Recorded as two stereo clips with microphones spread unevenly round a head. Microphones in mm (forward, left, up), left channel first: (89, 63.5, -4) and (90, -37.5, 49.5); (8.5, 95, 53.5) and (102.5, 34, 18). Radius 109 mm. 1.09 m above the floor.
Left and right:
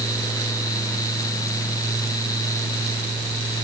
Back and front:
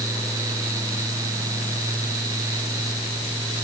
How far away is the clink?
No clink in this recording.